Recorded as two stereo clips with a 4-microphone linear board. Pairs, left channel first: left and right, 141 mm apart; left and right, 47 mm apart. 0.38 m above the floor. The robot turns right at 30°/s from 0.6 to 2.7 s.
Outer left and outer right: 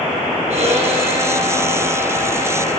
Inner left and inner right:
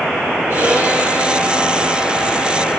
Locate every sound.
0.5 s a violin: 55° right, 8.5 m; by 2.8 s 10° left, 8.5 m